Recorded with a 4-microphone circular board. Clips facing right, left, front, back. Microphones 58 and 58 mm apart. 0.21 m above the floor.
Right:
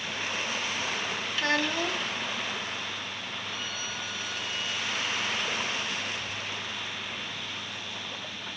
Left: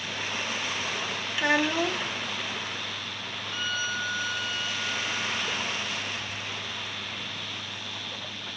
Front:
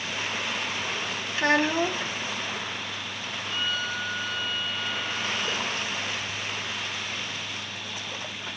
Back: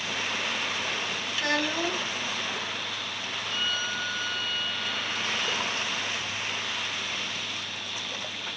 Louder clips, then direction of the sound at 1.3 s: Left 4 dB, front 6 dB; 25° left.